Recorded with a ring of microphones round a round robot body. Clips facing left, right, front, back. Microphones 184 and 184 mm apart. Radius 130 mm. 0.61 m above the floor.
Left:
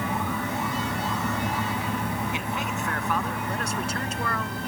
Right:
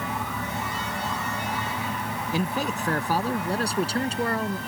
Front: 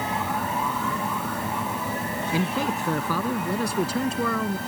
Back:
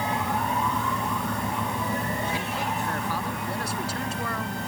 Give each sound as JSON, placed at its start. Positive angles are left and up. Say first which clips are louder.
{"t": 2.3, "sound": "a man speaking", "louder": "right 3 dB, front 5 dB", "azimuth_deg": -35}